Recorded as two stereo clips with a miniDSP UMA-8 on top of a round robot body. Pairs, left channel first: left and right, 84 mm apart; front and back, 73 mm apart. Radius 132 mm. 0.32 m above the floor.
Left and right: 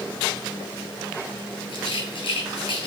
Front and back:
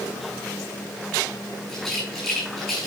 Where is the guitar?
No guitar in this recording.